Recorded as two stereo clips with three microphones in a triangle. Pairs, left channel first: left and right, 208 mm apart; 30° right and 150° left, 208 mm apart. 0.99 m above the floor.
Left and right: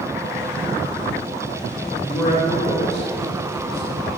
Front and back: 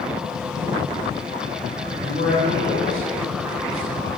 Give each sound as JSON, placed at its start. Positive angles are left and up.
{"t": 2.0, "sound": "a man speaking", "azimuth_deg": 0, "distance_m": 4.5}